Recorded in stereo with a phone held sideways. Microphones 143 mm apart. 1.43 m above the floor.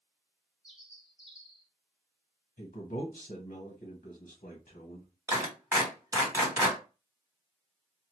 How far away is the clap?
About 1.7 m.